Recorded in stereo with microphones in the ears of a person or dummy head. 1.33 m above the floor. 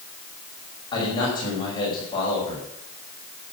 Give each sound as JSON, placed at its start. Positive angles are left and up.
{"t": 0.9, "sound": "a man speaking", "side_deg": 25, "distance_m": 6.0}